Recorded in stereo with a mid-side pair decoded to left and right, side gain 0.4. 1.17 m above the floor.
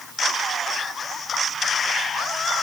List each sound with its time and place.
Only background noise.